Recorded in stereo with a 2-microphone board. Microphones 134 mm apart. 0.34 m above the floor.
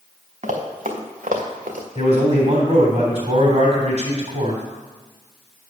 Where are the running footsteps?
75° right (ahead or behind), 2 m; by 1.9 s 80° right, 2.5 m.